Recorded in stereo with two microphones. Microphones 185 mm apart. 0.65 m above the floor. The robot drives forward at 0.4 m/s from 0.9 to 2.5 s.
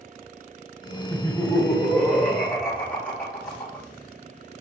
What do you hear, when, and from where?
1.1 s laughter: 10° left (ahead or behind), 2.5 m